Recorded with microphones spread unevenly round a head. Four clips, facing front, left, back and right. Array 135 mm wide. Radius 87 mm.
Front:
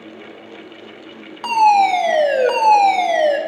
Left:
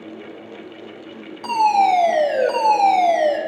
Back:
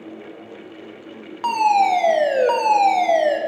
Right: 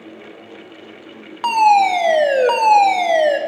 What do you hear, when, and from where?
1.4 s a fire alarm: 75° right, 2.5 m